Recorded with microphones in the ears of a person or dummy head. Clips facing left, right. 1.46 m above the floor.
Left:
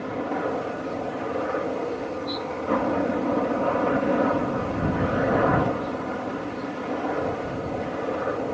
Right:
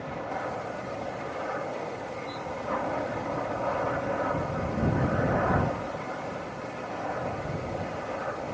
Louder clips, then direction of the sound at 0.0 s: Left 7 dB; 55° left (ahead or behind).